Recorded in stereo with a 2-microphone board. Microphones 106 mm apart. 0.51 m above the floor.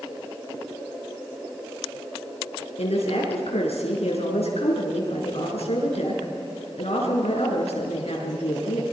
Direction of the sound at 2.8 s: 75° left (ahead or behind).